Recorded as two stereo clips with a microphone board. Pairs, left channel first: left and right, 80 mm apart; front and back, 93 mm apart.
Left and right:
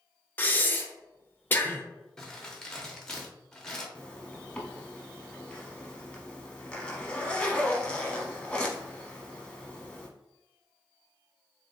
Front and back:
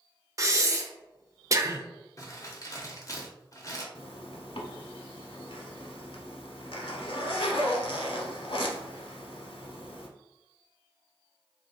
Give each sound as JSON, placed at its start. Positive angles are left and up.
{"t": 0.4, "sound": "breathing", "azimuth_deg": 145, "distance_m": 0.6}
{"t": 2.2, "sound": "crumpling", "azimuth_deg": 10, "distance_m": 1.0}
{"t": 4.0, "sound": "a zipper", "azimuth_deg": 15, "distance_m": 0.9}